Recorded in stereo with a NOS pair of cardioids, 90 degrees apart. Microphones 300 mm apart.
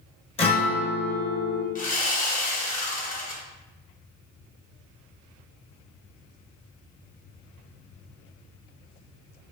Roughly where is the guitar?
Ahead.